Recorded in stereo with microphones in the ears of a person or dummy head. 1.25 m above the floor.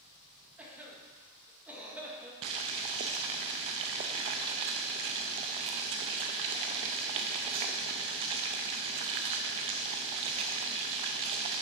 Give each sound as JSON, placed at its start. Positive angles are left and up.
{"t": 0.6, "sound": "a cough", "side_deg": -10, "distance_m": 1.7}
{"t": 2.4, "sound": "boiling", "side_deg": -25, "distance_m": 0.5}